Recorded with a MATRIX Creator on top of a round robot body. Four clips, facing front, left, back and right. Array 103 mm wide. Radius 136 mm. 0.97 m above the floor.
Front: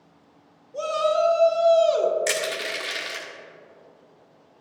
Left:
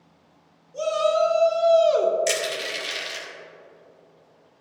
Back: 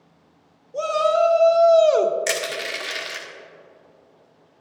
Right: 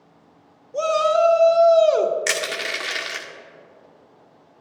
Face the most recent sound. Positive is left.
turn(degrees=-100)